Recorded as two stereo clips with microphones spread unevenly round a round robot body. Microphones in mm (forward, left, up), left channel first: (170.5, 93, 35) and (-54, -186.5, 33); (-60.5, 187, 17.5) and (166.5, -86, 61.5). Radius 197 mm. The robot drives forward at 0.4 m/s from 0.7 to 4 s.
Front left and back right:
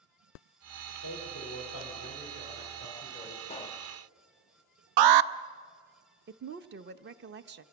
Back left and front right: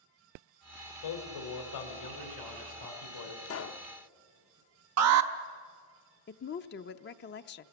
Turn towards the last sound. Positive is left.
turn(degrees=175)